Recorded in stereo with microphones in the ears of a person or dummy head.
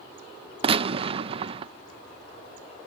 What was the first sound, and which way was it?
A gunshot, 35° right (ahead or behind).